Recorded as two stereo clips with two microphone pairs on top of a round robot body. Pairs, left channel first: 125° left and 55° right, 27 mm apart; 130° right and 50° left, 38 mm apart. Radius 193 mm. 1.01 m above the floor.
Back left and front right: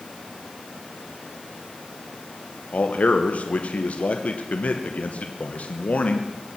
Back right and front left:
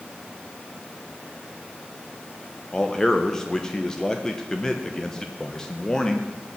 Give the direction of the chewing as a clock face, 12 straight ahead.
No chewing in this recording.